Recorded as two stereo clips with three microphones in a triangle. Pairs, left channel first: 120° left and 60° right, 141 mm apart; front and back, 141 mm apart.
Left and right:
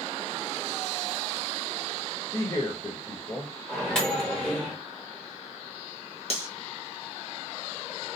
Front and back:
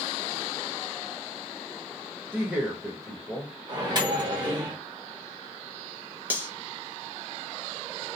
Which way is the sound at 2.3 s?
125° left.